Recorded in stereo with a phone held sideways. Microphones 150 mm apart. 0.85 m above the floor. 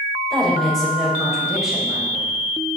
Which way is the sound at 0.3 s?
5° left (ahead or behind).